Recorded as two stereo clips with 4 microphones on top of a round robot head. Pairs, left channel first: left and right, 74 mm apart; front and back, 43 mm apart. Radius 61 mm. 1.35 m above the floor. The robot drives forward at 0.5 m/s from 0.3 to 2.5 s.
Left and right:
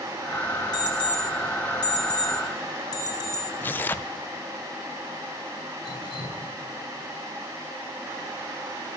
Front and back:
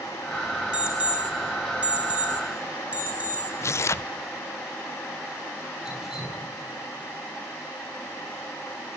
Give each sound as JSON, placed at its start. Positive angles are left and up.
{"t": 0.7, "sound": "an alarm clock", "azimuth_deg": 115, "distance_m": 5.5}
{"t": 3.6, "sound": "tearing paper", "azimuth_deg": 20, "distance_m": 0.5}
{"t": 5.8, "sound": "dripping", "azimuth_deg": 100, "distance_m": 4.5}